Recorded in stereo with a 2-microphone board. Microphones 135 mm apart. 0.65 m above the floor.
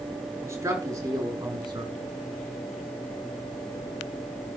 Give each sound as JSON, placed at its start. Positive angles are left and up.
{"t": 0.4, "sound": "a man speaking", "side_deg": -20, "distance_m": 6.0}